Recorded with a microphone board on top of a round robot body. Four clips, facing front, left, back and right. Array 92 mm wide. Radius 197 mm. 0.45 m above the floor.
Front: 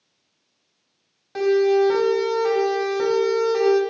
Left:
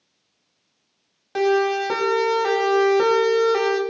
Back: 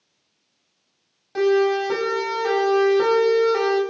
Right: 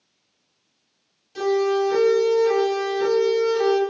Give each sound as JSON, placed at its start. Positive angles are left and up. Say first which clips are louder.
{"t": 1.4, "sound": "a siren", "louder": "left 1 dB, front 1 dB", "azimuth_deg": 85, "distance_m": 7.0}